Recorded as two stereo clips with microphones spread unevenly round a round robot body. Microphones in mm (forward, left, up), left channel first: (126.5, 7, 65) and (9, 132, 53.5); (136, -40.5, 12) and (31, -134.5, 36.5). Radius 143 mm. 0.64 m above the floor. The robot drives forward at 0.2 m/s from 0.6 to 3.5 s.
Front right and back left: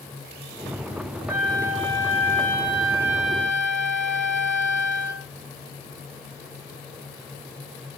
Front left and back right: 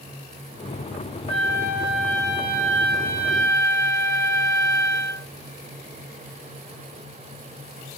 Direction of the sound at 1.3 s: 150° right.